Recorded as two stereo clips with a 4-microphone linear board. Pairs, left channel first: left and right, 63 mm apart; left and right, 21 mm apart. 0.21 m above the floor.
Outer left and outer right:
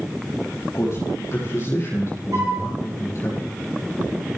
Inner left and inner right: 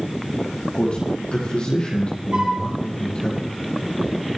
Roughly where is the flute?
Right.